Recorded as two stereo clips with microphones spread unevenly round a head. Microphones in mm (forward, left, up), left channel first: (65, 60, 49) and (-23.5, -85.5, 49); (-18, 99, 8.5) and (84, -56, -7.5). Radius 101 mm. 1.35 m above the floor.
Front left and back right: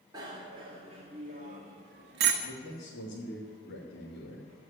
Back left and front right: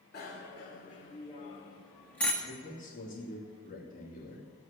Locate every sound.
0.1 s a bicycle bell: 170° left, 3 m; by 2.3 s 150° right, 1.7 m
2.4 s a man speaking: 75° left, 3 m